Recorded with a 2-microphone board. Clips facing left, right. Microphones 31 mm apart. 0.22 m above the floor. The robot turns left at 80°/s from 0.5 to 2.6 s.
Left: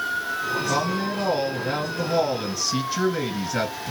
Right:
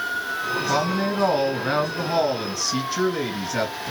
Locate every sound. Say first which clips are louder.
0.7 s a woman speaking: right 2 dB; 30° right, 2.5 m; by 3.9 s 175° left, 2.5 m